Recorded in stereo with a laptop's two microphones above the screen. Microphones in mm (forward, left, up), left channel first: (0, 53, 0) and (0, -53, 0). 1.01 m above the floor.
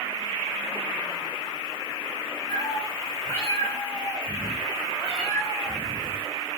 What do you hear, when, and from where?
2.5 s a cat meowing: 35° left (ahead or behind), 1.8 m; by 6.3 s centre (ahead or behind), 4.5 m